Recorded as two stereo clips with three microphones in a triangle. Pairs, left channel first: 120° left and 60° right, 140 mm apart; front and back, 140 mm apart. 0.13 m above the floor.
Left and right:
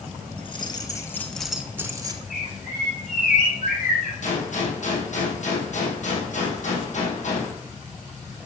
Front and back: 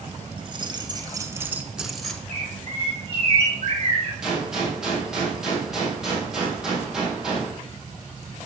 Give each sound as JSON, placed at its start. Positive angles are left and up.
{"t": 0.4, "sound": "keys jangling", "azimuth_deg": 145, "distance_m": 1.4}
{"t": 2.3, "sound": "a bird", "azimuth_deg": 135, "distance_m": 3.5}
{"t": 4.2, "sound": "a gunshot", "azimuth_deg": 95, "distance_m": 3.5}